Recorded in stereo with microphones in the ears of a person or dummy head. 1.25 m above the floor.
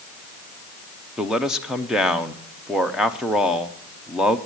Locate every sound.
1.2 s a man speaking: 5° right (ahead or behind), 0.6 m